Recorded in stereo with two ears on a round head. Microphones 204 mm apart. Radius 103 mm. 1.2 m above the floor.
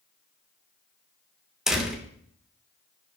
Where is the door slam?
5° right (ahead or behind), 2.5 m.